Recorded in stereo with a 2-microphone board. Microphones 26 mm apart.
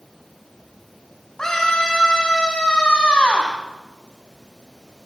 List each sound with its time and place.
1.4 s a scream: 20° left (ahead or behind), 4.5 m; by 3.5 s 55° left (ahead or behind), 4.5 m